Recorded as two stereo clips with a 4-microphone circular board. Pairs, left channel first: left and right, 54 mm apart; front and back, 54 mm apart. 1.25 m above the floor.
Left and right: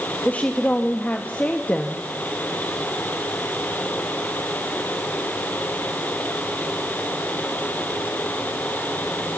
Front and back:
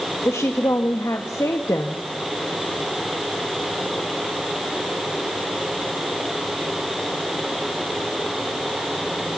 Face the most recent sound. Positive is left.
turn(degrees=30)